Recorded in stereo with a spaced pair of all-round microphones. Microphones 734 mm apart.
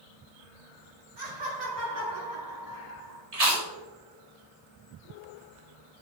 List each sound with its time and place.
1.2 s laughter: 85° right, 4.5 m; by 3.2 s 55° right (ahead or behind), 5 m
3.3 s chewing: 55° right (ahead or behind), 2 m